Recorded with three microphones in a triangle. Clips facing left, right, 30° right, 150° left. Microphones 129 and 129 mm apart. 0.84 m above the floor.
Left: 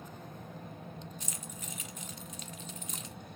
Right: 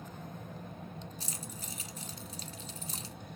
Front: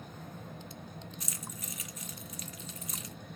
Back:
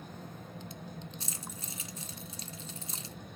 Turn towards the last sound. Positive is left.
turn(degrees=-145)